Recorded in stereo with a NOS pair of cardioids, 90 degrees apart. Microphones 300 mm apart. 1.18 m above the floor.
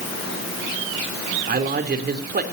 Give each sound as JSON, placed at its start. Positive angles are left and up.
{"t": 1.5, "sound": "a man speaking", "azimuth_deg": -35, "distance_m": 3.5}